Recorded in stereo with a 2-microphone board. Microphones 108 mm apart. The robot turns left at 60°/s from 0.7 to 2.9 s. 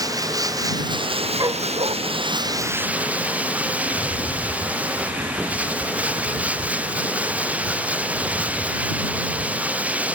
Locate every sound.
0.0 s running water: 35° right; by 10.2 s 165° right
1.4 s a dog barking: 40° right; by 2.0 s 70° right
3.9 s a rattle: 10° right (ahead or behind)